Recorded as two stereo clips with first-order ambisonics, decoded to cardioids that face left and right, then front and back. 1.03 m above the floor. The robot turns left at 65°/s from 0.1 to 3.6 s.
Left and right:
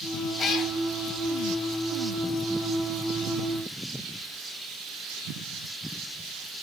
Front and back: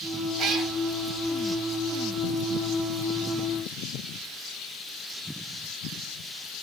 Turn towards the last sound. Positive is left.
turn(degrees=-70)